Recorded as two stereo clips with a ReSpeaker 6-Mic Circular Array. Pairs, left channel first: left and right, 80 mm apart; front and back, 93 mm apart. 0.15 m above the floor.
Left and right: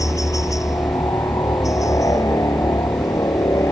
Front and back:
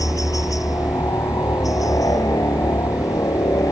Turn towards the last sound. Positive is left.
turn(degrees=50)